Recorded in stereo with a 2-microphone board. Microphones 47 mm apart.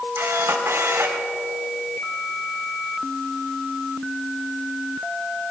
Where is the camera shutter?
85° right, 4 m.